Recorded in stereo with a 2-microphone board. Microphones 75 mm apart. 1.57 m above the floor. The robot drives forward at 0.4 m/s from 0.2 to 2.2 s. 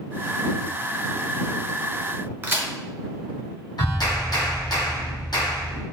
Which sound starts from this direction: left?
A clap, at 3.8 s.